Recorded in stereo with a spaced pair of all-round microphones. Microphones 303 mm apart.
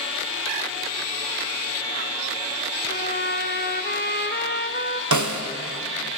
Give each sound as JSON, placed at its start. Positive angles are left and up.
{"t": 2.9, "sound": "a trumpet", "side_deg": 35, "distance_m": 0.6}
{"t": 5.1, "sound": "a snare drum", "side_deg": -70, "distance_m": 0.9}